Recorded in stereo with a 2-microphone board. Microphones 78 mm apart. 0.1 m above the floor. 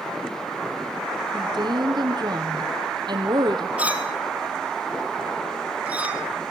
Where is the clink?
15° right (ahead or behind), 2.5 m.